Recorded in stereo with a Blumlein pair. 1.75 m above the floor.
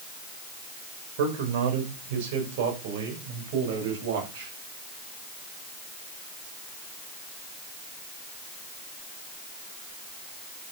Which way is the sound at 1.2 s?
45° right.